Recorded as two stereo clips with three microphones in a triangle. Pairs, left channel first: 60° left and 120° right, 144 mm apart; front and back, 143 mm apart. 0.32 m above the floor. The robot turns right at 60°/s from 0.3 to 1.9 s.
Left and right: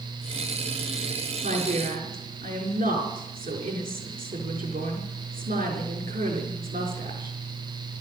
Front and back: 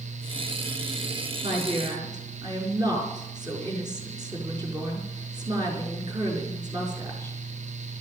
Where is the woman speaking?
150° right, 5.5 m; by 7.3 s 120° right, 5.5 m.